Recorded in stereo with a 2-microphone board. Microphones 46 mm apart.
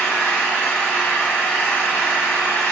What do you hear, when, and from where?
0.0 s an engine running: 60° left (ahead or behind), 0.8 m